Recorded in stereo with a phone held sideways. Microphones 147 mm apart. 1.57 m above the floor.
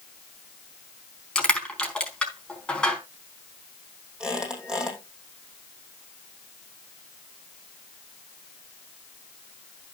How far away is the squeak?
About 4.5 m.